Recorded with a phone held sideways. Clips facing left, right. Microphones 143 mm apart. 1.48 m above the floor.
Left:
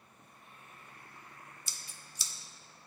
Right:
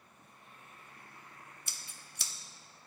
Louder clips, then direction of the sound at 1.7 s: Even; 60° right (ahead or behind).